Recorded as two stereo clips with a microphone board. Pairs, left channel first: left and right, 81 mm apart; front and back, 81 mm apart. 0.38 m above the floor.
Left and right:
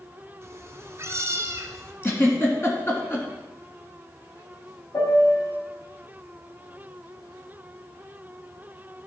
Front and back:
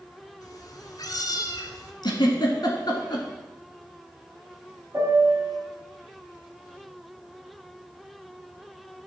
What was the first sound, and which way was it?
A cat meowing, 35° right.